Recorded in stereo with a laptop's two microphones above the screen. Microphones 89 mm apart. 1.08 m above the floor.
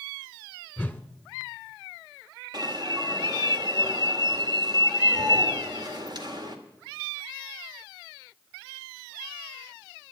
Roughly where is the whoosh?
Centre.